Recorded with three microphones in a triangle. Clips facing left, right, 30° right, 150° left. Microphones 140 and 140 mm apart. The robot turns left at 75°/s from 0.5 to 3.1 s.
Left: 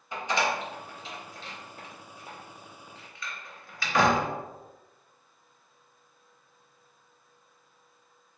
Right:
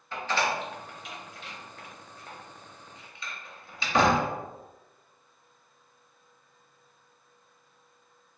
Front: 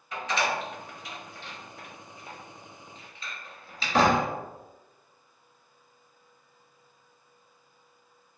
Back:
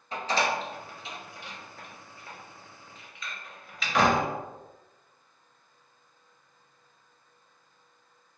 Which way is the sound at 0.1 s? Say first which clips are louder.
Even, back 1 dB; 150° left.